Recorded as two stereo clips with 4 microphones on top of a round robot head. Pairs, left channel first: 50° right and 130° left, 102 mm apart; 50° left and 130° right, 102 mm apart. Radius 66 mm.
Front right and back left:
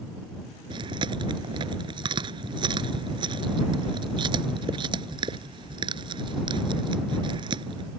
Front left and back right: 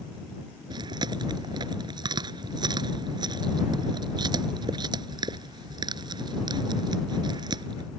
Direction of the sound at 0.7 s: Straight behind.